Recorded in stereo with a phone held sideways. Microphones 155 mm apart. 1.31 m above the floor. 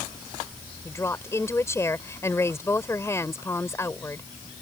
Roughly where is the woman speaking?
Centre.